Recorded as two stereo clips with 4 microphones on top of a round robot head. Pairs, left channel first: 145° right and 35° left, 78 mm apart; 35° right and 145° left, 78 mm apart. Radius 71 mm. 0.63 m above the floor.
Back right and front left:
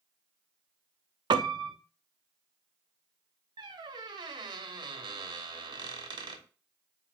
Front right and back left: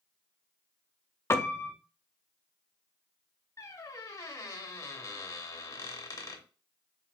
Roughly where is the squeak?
Ahead.